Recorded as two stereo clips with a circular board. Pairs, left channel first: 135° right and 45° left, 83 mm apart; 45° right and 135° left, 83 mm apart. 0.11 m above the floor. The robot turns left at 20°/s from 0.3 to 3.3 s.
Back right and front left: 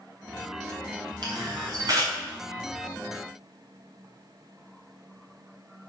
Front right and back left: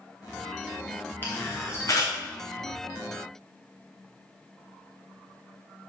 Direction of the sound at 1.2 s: 20° left.